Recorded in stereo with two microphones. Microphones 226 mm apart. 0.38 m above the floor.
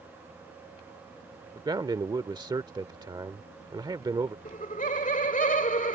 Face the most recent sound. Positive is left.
turn(degrees=35)  # may be behind; listen again after turning